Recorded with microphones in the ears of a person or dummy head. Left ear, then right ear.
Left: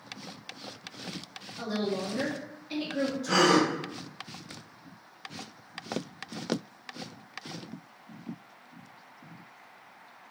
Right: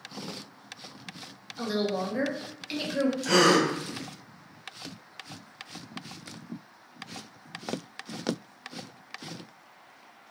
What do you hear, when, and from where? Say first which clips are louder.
1.6 s a woman speaking: right 3 dB; 75° right (ahead or behind), 1.2 m
3.2 s a gasp: right 1 dB; 55° right (ahead or behind), 1.2 m